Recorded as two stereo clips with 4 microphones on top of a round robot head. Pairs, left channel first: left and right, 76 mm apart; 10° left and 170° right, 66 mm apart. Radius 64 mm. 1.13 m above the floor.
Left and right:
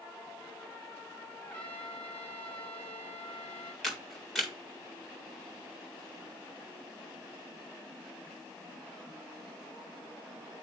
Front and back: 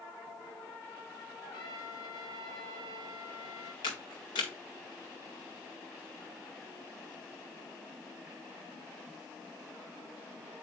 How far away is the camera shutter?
About 1.8 m.